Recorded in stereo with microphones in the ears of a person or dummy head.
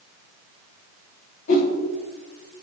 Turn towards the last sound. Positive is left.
turn(degrees=50)  # may be behind; listen again after turning